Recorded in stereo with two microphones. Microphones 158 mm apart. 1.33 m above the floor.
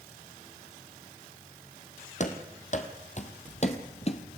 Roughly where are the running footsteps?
Left.